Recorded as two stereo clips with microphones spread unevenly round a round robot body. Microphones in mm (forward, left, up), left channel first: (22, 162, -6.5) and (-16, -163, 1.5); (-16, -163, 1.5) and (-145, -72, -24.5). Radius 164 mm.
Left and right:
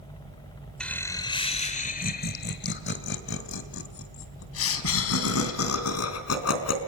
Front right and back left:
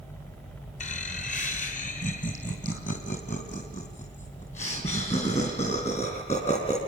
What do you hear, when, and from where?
0.8 s laughter: straight ahead, 0.9 m; by 6.8 s 40° left, 3.5 m